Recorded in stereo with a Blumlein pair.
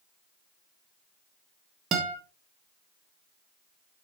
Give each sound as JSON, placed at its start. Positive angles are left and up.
{"t": 1.9, "sound": "a guitar", "azimuth_deg": -25, "distance_m": 1.9}